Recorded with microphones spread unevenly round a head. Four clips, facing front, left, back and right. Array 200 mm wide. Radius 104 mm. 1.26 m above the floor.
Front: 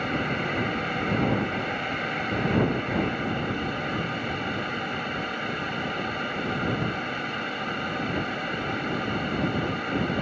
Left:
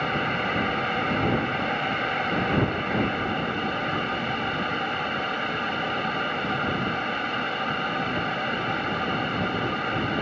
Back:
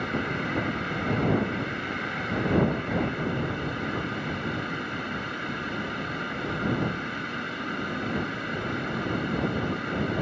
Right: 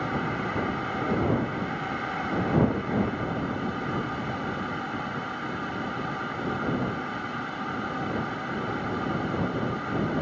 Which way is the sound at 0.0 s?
60° left.